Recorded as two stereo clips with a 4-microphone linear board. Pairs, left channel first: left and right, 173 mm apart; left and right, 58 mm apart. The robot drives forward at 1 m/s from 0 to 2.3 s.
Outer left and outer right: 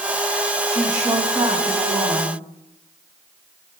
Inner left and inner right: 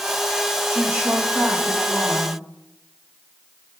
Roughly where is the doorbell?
I don't hear a doorbell.